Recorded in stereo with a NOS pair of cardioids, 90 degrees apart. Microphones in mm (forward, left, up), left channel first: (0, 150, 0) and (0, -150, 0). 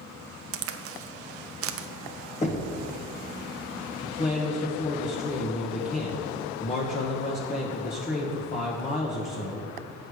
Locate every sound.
0.5 s a crack: 50° right, 0.6 m
2.4 s knocking: 25° left, 1.2 m
4.0 s a man speaking: 25° left, 1.1 m